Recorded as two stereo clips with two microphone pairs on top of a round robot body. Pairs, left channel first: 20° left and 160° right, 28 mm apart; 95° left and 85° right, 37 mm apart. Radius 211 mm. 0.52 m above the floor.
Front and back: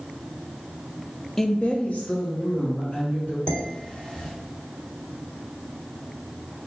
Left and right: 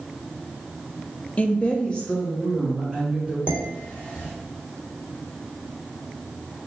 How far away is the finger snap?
I don't hear a finger snap.